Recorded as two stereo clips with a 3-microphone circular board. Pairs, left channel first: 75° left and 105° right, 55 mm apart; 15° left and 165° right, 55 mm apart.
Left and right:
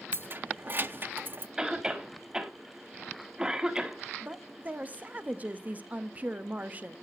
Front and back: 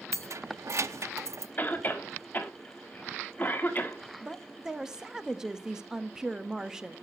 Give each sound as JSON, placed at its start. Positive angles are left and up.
{"t": 0.1, "sound": "keys jangling", "azimuth_deg": -150, "distance_m": 0.5}
{"t": 1.6, "sound": "a cough", "azimuth_deg": -35, "distance_m": 2.0}
{"t": 4.2, "sound": "a woman speaking", "azimuth_deg": -100, "distance_m": 0.7}